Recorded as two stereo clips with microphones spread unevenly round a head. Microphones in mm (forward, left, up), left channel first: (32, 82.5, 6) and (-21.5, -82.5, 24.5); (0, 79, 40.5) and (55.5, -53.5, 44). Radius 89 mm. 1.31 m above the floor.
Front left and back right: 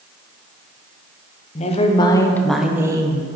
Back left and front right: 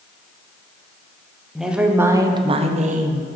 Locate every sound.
1.6 s a woman speaking: 20° left, 0.9 m; by 3.3 s 50° right, 0.7 m